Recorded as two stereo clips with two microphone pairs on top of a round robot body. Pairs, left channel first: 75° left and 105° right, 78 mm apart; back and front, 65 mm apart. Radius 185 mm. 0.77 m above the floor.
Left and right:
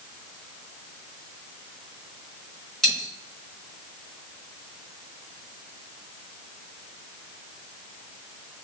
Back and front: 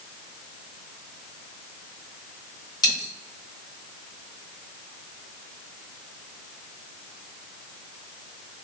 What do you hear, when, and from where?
2.8 s a dropped coin: 160° left, 1.4 m